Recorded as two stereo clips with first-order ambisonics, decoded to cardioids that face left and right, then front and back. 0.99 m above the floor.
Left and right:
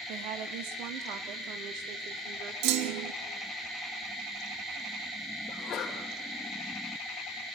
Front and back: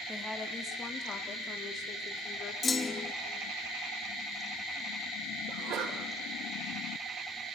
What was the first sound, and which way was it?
A woman speaking, 85° right.